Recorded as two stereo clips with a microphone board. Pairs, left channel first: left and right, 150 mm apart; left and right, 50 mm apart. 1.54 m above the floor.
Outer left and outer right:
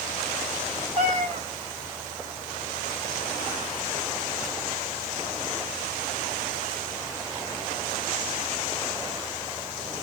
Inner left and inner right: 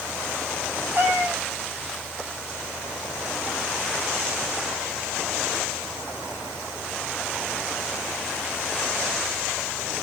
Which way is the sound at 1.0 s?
55° right (ahead or behind).